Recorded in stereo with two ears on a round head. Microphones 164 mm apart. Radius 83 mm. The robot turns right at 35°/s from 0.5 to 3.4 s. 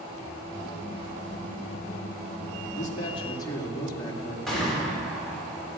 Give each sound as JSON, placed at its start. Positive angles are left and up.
{"t": 2.7, "sound": "a man speaking", "side_deg": 45, "distance_m": 2.5}
{"t": 4.5, "sound": "a gunshot", "side_deg": 0, "distance_m": 5.0}